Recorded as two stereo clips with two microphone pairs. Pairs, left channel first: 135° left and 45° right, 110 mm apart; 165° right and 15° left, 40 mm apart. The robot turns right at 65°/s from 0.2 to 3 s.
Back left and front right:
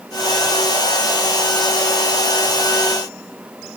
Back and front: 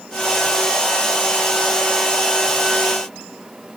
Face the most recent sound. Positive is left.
No sound to turn to.